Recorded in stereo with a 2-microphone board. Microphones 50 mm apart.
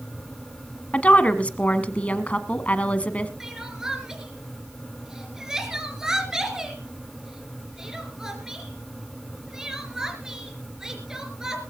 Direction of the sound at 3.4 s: 10° right (ahead or behind).